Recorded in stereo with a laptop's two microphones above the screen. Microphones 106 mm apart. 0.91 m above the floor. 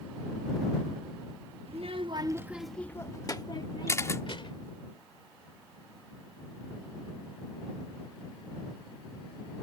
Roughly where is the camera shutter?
Left.